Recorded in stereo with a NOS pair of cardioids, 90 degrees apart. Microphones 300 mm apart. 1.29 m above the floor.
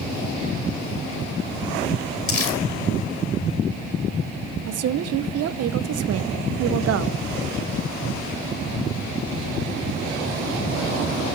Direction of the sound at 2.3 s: 45° left.